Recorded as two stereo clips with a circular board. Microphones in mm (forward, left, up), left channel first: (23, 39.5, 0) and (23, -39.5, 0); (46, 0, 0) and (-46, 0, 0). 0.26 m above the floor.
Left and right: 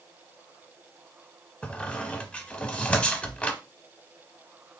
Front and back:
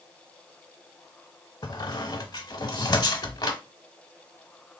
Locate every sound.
1.6 s a squeak: 20° left, 0.6 m